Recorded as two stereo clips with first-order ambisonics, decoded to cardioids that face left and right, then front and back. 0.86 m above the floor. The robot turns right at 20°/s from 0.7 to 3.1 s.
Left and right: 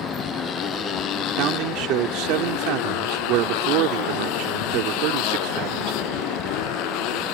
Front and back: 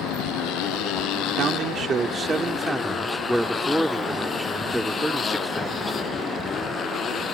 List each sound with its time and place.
0.0 s a motorcycle: 35° left; by 7.3 s 65° left
1.4 s a man speaking: 125° right; by 6.2 s 90° right